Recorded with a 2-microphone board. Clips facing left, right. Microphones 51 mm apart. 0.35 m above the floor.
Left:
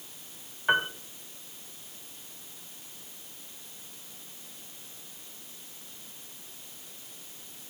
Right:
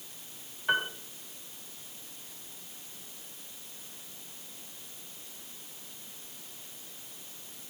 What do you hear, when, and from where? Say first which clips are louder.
0.7 s a piano: left 3 dB; 25° left (ahead or behind), 1.2 m